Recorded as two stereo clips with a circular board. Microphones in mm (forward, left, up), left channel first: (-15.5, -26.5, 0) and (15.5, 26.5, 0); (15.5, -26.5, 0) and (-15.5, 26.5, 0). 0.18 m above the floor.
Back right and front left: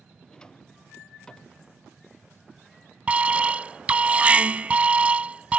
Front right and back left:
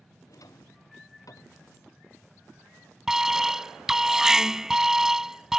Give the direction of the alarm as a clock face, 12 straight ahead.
10 o'clock.